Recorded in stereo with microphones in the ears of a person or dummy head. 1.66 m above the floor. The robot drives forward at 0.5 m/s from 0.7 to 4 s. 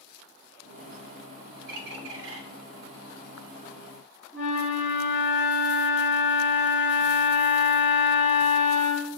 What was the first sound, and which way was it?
A bird, 55° right (ahead or behind).